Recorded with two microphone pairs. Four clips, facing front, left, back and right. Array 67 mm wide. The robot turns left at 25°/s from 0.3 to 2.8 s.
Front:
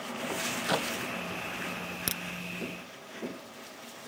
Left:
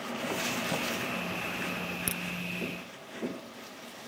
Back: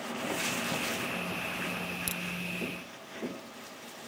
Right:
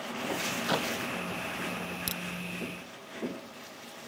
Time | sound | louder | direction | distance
0.7 | a clap | right 3 dB, front 4 dB | 35° right | ?
2.1 | a crack | left 2 dB, front 1 dB | 15° left | ?